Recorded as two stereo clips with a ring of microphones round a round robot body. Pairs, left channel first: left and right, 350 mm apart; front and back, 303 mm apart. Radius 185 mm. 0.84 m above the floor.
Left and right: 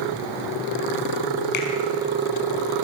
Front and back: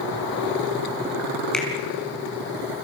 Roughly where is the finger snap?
Left.